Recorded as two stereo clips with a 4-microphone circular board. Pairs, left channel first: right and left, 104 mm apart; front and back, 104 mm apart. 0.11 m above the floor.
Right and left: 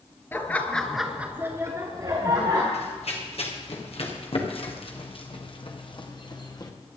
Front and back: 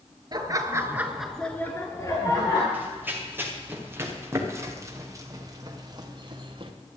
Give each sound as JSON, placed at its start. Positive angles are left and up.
{"t": 0.3, "sound": "laughter", "azimuth_deg": -155, "distance_m": 1.8}
{"t": 2.7, "sound": "running footsteps", "azimuth_deg": -105, "distance_m": 4.0}